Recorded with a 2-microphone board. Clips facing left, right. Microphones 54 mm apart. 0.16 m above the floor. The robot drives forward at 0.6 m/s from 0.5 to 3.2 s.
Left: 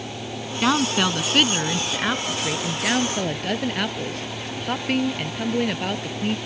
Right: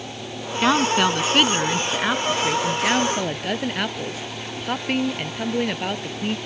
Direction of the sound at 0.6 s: 5° right (ahead or behind).